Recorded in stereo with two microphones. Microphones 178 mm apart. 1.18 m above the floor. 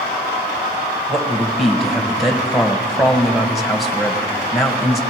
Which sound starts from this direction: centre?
A man speaking, at 1.1 s.